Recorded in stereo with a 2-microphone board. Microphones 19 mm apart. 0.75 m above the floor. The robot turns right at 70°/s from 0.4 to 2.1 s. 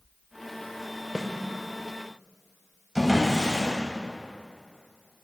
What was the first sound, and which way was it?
A snare drum, 40° right (ahead or behind).